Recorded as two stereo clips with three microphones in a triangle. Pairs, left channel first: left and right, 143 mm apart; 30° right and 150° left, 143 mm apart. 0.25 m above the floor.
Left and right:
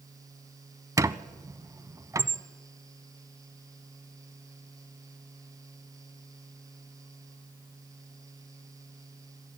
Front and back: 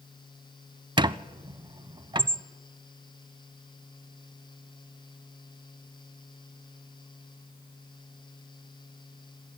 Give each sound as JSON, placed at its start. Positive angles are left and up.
{"t": 1.0, "sound": "a squeak", "azimuth_deg": -155, "distance_m": 0.5}